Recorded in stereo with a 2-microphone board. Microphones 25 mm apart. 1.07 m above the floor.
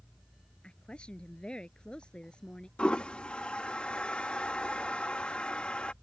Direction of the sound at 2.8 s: 50° left (ahead or behind).